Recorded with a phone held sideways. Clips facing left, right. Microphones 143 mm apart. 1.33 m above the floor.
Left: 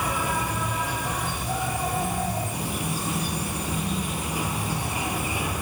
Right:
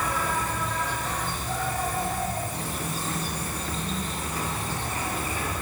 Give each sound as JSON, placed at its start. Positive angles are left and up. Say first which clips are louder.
{"t": 0.0, "sound": "an insect", "louder": "left 1 dB", "side_deg": 10, "distance_m": 4.5}